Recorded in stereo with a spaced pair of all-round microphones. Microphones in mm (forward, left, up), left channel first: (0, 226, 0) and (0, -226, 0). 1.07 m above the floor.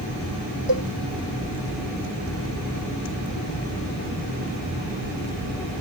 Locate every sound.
0.7 s a cowbell: 70° right (ahead or behind)